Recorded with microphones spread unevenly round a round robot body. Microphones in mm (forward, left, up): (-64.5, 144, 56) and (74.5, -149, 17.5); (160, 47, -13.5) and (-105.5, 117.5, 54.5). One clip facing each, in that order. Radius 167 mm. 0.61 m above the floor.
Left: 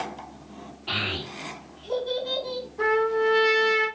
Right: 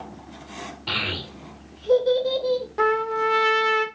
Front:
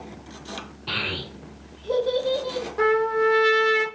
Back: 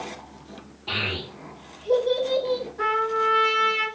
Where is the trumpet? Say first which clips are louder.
Left 1 dB, front 7 dB; 45° right, 0.8 m.